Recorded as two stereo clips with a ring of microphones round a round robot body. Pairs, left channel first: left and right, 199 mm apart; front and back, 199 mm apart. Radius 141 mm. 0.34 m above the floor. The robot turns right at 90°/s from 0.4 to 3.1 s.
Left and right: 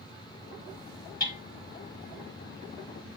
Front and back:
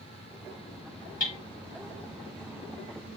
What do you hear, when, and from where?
1.2 s hammering: 45° left, 5 m; by 1.4 s 60° left, 5 m